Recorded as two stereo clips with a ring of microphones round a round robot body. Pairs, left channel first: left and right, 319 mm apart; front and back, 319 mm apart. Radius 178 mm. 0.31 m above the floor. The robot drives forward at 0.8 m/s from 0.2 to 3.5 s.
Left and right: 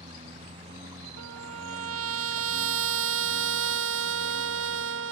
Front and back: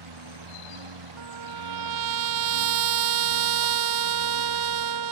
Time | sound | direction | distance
0.0 | a lawn mower | 165° right | ?
1.2 | a trumpet | 140° right | ?